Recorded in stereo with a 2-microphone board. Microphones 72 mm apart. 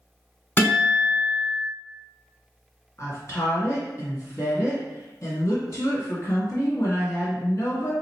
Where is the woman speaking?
45° left (ahead or behind), 1.8 m.